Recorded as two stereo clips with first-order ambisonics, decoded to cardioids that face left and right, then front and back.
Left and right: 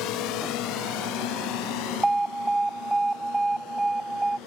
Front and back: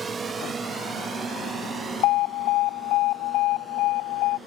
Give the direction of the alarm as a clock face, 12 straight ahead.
12 o'clock.